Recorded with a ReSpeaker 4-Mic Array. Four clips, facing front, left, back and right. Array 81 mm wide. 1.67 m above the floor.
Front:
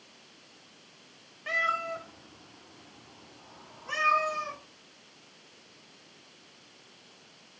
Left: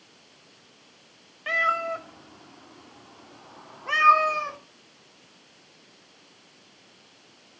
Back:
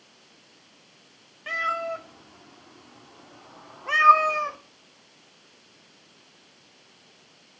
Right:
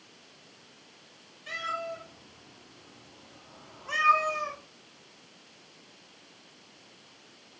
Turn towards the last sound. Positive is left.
turn(degrees=150)